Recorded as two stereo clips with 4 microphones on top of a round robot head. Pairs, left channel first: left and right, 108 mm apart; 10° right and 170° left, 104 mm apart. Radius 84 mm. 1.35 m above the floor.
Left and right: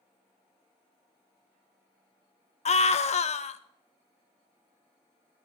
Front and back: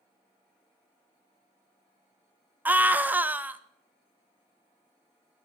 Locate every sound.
2.6 s a scream: 100° left, 0.9 m